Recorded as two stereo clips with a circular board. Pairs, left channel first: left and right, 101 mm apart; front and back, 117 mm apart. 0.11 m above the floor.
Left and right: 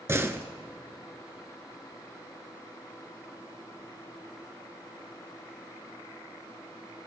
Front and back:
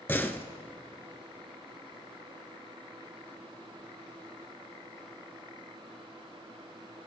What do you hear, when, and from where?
0.1 s a door slam: 55° right, 1.0 m